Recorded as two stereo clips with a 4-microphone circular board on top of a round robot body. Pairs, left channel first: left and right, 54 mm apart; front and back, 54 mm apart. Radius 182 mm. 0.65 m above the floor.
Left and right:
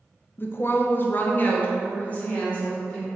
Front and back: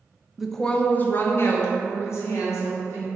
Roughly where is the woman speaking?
Left.